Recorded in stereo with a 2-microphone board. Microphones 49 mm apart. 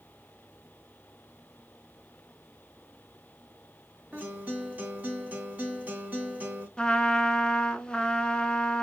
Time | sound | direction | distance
4.1 | a guitar | 30° right (ahead or behind) | 2.5 m
6.8 | a trumpet | 20° left (ahead or behind) | 0.7 m